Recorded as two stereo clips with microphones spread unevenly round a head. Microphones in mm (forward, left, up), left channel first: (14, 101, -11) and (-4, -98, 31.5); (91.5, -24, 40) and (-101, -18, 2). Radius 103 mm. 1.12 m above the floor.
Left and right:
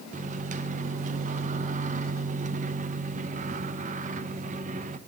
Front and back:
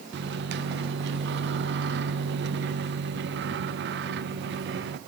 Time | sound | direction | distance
0.1 | a microwave | 155° right | 0.7 m